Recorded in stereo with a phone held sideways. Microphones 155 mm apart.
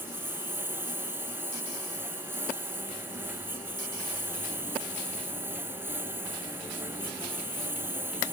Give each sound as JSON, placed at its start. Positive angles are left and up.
{"t": 0.0, "sound": "a lawn mower", "side_deg": -15}